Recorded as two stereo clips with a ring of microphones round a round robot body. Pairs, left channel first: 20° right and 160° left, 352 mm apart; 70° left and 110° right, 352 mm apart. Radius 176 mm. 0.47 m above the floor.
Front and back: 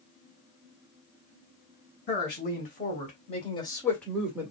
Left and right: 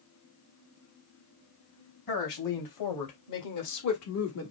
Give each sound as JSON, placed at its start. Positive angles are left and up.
{"t": 2.1, "sound": "a woman speaking", "azimuth_deg": 40, "distance_m": 3.0}